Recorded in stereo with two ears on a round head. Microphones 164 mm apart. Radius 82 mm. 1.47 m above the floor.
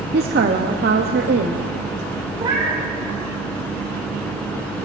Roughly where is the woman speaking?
Right.